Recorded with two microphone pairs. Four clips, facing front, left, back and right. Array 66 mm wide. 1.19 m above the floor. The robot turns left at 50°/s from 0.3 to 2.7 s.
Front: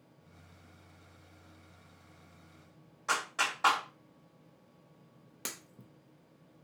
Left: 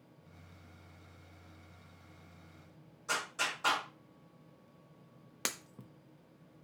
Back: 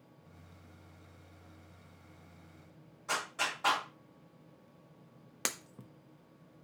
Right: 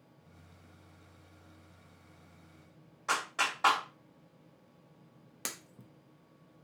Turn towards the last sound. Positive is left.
turn(degrees=160)